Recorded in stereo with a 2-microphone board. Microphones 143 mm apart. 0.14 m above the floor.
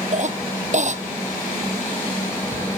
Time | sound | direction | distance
0.1 | a cough | 50° right (ahead or behind) | ?